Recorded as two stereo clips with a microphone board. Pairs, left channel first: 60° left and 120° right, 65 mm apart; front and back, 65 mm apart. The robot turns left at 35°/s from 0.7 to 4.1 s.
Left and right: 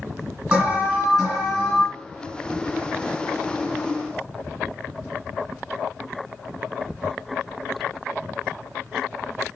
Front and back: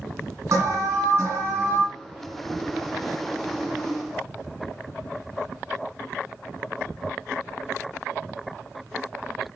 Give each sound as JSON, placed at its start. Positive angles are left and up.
{"t": 0.5, "sound": "an alarm", "azimuth_deg": 170, "distance_m": 2.5}